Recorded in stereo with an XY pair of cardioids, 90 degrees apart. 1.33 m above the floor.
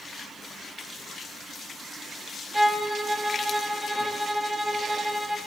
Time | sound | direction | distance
2.5 | a violin | 15° right | 1.4 m